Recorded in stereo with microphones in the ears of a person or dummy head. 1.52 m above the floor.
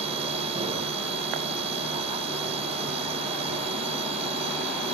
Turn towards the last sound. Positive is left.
turn(degrees=-30)  # may be behind; listen again after turning